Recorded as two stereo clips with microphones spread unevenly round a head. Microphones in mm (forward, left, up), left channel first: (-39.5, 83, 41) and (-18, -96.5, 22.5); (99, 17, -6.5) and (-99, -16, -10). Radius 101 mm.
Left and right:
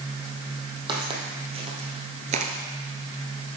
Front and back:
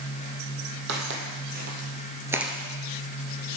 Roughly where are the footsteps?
Behind right.